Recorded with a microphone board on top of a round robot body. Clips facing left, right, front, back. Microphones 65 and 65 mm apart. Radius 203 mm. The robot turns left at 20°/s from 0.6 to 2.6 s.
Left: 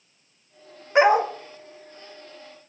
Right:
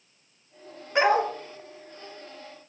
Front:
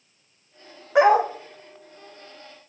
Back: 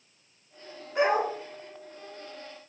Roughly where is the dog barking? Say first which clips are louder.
Left 4 dB, front 8 dB; ahead.